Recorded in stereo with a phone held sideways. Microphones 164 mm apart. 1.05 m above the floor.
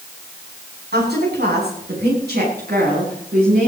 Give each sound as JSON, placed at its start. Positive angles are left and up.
{"t": 0.9, "sound": "a woman speaking", "side_deg": -85, "distance_m": 7.0}